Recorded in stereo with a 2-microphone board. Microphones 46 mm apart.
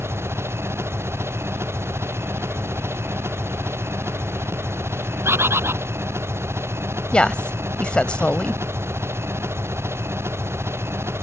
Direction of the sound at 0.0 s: 60° right (ahead or behind).